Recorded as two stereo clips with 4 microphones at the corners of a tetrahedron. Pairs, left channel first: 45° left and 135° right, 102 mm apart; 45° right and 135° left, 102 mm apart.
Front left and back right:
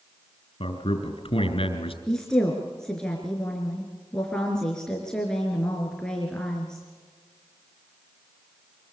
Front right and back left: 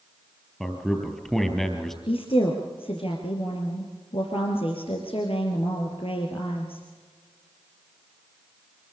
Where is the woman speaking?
35° right, 3.5 m.